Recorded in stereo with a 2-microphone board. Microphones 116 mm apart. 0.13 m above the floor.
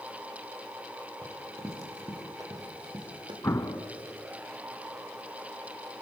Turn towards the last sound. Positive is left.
turn(degrees=20)  # may be behind; listen again after turning